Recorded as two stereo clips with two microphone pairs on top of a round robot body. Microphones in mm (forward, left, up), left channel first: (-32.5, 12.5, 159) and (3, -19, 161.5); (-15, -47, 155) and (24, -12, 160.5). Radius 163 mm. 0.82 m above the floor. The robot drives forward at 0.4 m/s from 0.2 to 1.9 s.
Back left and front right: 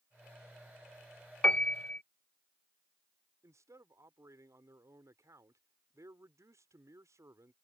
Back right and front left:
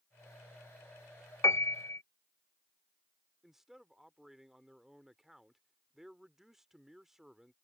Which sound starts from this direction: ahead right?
A man speaking, at 3.4 s.